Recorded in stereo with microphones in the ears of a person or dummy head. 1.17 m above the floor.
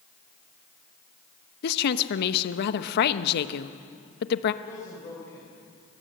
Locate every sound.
1.6 s a woman speaking: 60° left (ahead or behind), 1.0 m
4.6 s a man speaking: 20° left (ahead or behind), 4.5 m